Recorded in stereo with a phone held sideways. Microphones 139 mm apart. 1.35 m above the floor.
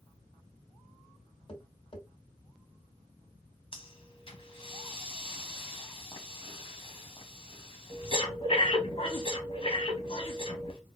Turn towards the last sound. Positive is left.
turn(degrees=40)  # may be behind; listen again after turning